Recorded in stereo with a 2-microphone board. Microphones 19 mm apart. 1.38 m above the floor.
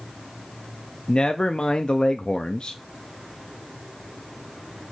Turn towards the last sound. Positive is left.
turn(degrees=50)  # may be behind; listen again after turning